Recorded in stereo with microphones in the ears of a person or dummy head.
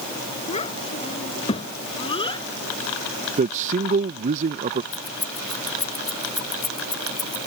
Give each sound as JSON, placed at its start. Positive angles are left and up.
{"t": 0.5, "sound": "a child speaking", "side_deg": 35}
{"t": 3.4, "sound": "a man speaking", "side_deg": -40}
{"t": 4.9, "sound": "keys jangling", "side_deg": 20}